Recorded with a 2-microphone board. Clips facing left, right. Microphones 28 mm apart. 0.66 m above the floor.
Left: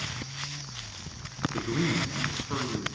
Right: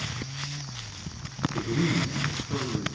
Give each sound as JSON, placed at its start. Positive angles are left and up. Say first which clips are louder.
{"t": 1.5, "sound": "a man speaking", "louder": "right 2 dB", "side_deg": 65, "distance_m": 7.0}